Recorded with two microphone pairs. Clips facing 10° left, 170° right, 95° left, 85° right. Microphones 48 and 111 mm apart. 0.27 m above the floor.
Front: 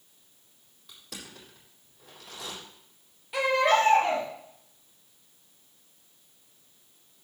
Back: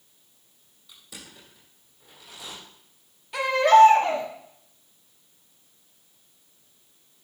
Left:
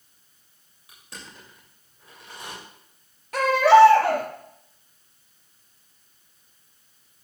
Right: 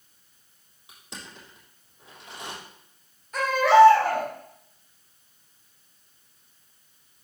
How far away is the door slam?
No door slam in this recording.